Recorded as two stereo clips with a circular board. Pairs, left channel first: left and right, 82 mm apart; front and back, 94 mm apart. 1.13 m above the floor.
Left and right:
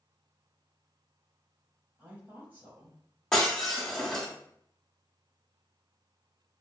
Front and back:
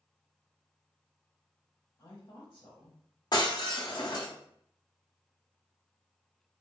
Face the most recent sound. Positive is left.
turn(degrees=10)